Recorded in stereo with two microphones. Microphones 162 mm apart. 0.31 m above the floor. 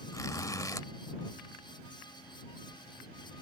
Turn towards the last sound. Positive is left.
turn(degrees=20)  # may be behind; listen again after turning